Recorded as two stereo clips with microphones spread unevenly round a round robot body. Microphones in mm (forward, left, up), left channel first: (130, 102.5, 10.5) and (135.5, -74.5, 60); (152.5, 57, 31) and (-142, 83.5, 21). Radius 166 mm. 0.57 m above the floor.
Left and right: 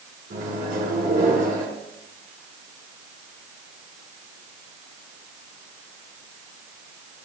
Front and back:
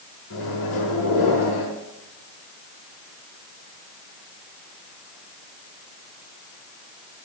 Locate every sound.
0.3 s a microwave: 55° right, 5 m